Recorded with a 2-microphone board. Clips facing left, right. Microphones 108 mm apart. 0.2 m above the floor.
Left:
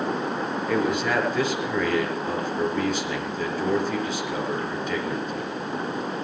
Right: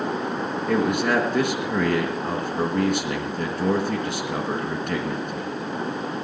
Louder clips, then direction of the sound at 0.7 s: Right 3 dB; 60° right (ahead or behind).